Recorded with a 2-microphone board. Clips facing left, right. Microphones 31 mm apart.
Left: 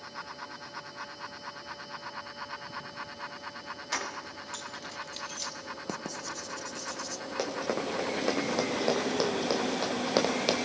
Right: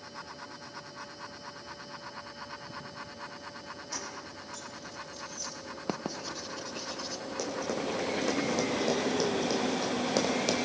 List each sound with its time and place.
3.9 s keys jangling: 65° left (ahead or behind), 1.6 m; by 5.5 s 75° left (ahead or behind), 2 m
5.9 s writing: 25° right (ahead or behind), 0.8 m
7.4 s running footsteps: 40° left (ahead or behind), 4 m; by 10.6 s 30° left (ahead or behind), 1.8 m